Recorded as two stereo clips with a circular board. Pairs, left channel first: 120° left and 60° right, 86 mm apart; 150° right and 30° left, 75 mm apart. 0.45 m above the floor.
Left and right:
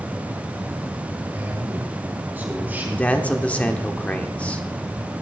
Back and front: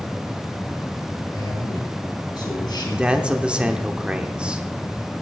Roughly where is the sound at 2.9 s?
Left.